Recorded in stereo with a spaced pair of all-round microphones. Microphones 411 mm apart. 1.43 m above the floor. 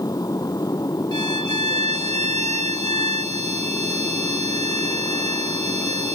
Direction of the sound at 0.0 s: 10° left (ahead or behind).